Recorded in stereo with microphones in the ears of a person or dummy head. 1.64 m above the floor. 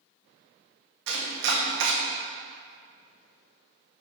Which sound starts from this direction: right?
Chopping, at 1.1 s.